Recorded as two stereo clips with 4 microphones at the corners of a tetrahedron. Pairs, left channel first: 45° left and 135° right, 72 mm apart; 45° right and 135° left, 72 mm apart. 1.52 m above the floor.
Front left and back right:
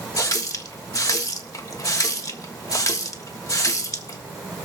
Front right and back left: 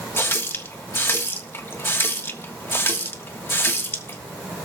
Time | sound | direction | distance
0.2 | a running tap | 10° left | 1.4 m